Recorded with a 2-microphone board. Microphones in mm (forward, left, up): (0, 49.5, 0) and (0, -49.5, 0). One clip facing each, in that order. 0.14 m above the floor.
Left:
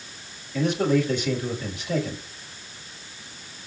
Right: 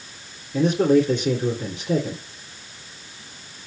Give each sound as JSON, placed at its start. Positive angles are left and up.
{"t": 0.5, "sound": "a man speaking", "side_deg": -45, "distance_m": 1.9}